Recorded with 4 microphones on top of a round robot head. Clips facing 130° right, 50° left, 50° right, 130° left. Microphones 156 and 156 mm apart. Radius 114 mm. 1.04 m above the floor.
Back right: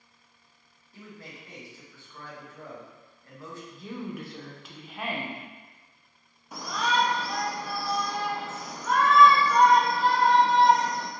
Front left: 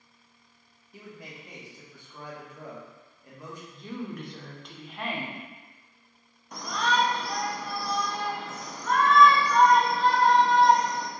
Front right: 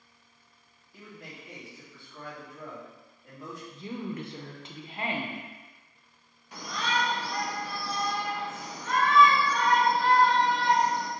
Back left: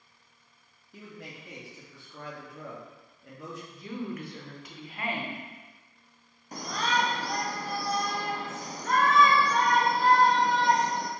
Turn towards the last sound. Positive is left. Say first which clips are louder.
# even, back left 2 dB
turn(degrees=145)